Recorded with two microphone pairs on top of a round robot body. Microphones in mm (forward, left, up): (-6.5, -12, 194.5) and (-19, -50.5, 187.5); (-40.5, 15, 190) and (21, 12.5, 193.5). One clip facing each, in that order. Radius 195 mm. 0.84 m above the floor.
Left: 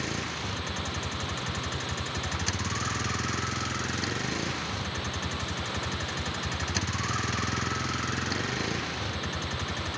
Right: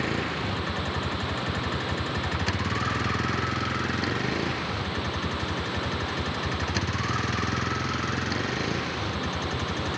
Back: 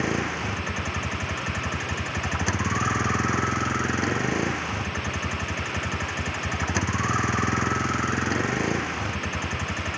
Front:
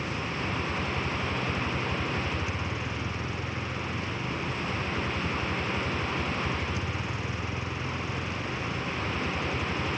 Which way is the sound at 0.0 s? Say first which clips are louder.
Right 5 dB, back 6 dB; straight behind.